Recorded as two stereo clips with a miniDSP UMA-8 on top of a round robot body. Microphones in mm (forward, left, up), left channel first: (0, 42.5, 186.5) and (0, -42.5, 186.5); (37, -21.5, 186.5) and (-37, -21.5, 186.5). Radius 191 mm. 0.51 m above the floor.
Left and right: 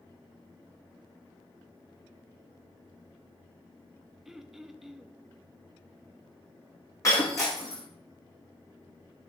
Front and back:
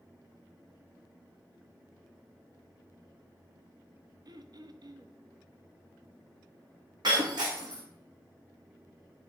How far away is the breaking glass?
About 1.8 m.